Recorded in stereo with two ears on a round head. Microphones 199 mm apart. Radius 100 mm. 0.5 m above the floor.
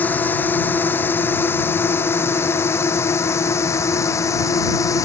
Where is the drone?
10° left (ahead or behind); by 5.0 s 15° left (ahead or behind).